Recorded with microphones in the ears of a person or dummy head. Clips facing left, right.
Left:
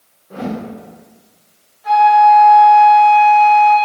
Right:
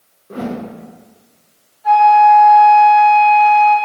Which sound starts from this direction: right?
A whoosh, at 0.3 s.